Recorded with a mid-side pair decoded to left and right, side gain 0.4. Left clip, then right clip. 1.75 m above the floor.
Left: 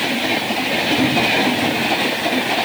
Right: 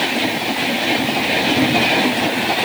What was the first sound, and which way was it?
Only background noise.